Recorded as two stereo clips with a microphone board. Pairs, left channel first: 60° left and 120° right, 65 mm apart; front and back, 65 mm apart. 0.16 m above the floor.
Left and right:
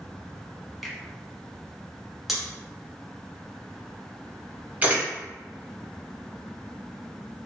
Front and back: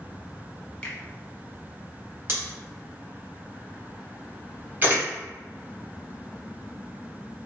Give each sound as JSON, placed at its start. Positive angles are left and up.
{"t": 0.8, "sound": "a finger snap", "azimuth_deg": -35, "distance_m": 0.9}
{"t": 2.3, "sound": "scissors", "azimuth_deg": 155, "distance_m": 1.2}
{"t": 4.8, "sound": "a camera shutter", "azimuth_deg": -155, "distance_m": 1.3}